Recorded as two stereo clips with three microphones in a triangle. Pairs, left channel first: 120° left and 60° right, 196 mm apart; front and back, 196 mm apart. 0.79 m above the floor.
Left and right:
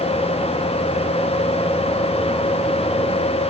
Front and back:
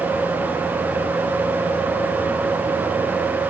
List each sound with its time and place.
Only background noise.